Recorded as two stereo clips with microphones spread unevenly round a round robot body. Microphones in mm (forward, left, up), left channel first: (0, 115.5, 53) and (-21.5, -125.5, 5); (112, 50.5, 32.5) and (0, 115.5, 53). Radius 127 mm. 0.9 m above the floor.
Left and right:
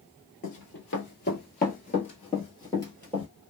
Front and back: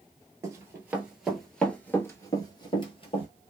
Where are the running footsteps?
95° left, 1.3 m; by 3.3 s 10° left, 1.4 m.